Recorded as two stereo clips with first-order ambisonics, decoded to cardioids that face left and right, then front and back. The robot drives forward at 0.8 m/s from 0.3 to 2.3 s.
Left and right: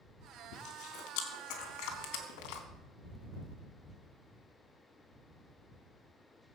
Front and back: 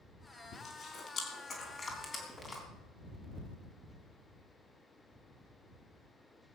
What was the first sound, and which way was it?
Chewing, 55° left.